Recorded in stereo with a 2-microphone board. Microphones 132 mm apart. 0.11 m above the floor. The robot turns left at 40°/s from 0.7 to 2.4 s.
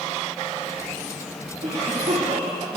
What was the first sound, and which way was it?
A cough, 45° right (ahead or behind).